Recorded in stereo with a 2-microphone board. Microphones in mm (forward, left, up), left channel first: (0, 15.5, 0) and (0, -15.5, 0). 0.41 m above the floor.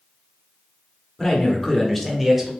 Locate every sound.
1.2 s a man speaking: 20° left (ahead or behind), 0.8 m; by 2.5 s 5° right (ahead or behind), 1.0 m